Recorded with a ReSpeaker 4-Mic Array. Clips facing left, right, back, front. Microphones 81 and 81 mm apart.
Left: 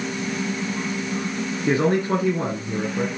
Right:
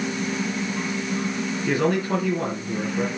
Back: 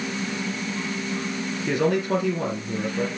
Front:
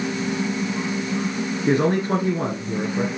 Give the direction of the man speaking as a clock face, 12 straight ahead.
11 o'clock.